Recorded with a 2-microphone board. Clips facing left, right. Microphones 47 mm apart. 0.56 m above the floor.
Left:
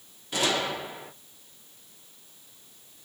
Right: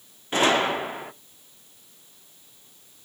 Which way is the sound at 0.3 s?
35° right (ahead or behind).